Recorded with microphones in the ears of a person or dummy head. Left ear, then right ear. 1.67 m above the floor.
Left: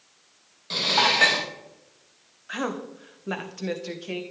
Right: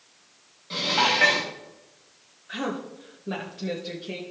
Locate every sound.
0.7 s dishes clattering: 35° left (ahead or behind), 1.3 m
2.5 s a woman speaking: 45° left (ahead or behind), 1.3 m